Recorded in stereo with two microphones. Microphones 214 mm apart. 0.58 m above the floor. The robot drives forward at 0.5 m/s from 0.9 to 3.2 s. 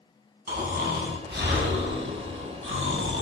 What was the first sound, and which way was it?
Snoring, 45° right (ahead or behind).